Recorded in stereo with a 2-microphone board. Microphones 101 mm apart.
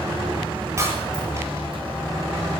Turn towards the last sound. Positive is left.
turn(degrees=-30)  # may be behind; listen again after turning